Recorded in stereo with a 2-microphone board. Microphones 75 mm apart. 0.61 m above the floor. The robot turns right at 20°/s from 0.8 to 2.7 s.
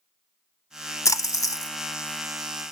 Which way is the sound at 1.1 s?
45° left (ahead or behind).